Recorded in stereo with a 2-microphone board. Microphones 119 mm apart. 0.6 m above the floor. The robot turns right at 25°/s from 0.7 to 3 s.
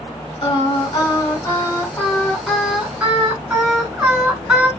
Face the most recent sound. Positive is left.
turn(degrees=-170)